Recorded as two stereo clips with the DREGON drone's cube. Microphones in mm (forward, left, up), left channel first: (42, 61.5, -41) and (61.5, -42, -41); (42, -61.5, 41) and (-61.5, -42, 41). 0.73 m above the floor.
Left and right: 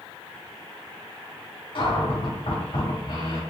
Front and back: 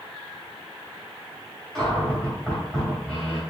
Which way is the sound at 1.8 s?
70° left.